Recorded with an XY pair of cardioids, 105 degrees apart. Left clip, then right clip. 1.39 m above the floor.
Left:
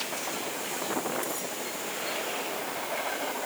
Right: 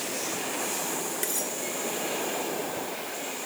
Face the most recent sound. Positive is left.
turn(degrees=-55)